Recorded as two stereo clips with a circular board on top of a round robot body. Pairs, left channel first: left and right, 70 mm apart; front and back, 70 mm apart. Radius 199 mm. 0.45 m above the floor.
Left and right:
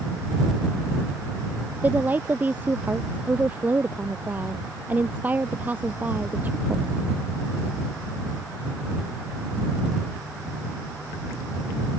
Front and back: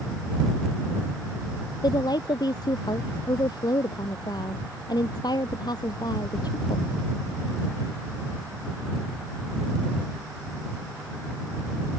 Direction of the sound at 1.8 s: 20° right.